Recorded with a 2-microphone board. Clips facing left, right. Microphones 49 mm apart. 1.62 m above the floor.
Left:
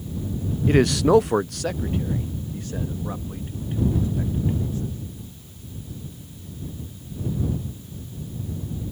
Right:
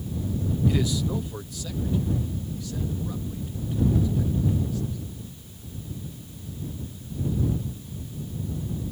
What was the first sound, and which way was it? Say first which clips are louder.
A man speaking: left 12 dB; 40° left (ahead or behind).